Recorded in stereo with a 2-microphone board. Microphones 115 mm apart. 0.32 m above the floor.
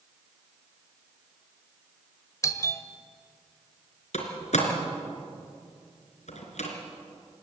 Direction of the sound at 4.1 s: 75° left (ahead or behind).